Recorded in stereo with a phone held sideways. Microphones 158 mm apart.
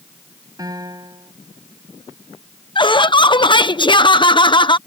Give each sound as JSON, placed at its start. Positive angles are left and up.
{"t": 0.6, "sound": "a piano", "side_deg": -25}
{"t": 2.8, "sound": "laughter", "side_deg": 30}